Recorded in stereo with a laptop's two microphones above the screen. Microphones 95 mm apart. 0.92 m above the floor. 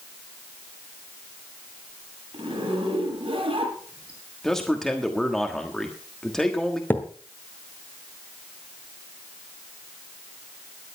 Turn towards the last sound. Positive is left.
turn(degrees=20)  # may be behind; listen again after turning